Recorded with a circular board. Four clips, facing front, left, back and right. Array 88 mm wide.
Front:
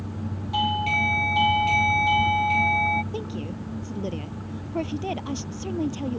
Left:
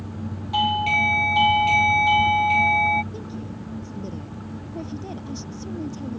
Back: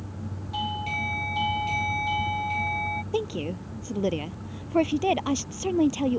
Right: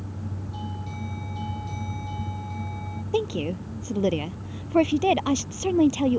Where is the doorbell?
70° left.